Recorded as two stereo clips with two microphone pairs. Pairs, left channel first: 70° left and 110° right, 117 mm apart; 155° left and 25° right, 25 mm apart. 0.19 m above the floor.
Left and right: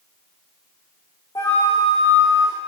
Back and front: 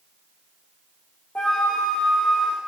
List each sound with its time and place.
1.4 s a flute: 125° left, 5.5 m